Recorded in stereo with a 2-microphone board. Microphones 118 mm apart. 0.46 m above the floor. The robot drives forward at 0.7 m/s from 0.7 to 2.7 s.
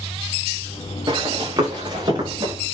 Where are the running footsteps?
40° right (ahead or behind), 6.5 m.